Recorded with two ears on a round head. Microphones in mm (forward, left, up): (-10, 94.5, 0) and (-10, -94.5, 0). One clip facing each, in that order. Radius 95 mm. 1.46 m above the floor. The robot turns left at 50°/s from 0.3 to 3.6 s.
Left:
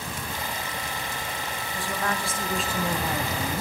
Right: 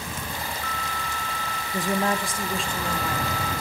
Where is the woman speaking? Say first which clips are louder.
Right 6 dB; 140° right, 1.2 m; by 3.6 s 130° left, 1.2 m.